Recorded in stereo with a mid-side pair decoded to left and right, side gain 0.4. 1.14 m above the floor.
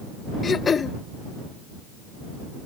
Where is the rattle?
I don't hear a rattle.